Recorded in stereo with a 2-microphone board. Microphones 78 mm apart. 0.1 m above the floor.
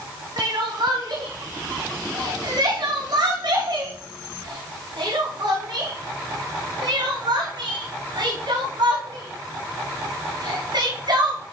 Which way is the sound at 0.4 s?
65° right (ahead or behind).